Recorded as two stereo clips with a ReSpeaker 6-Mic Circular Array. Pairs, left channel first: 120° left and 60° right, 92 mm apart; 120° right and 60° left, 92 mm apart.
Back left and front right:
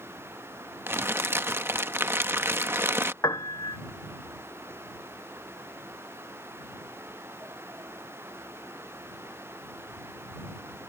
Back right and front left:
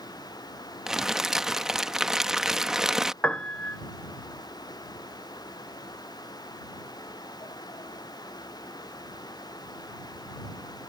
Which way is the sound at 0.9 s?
25° right.